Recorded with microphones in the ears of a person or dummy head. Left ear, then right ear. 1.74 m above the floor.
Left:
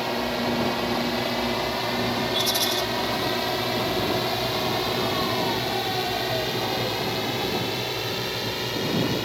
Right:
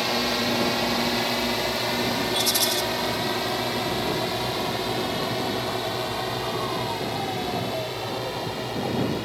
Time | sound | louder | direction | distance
0.0 | a drone | right 2 dB | 25° right (ahead or behind) | ?
2.3 | a rattle | even | 10° right (ahead or behind) | ?